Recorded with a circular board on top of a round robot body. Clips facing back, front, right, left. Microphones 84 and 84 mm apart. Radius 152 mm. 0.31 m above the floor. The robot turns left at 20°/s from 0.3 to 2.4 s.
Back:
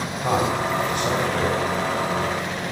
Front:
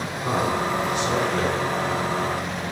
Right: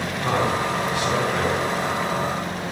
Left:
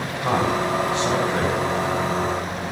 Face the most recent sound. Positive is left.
turn(degrees=125)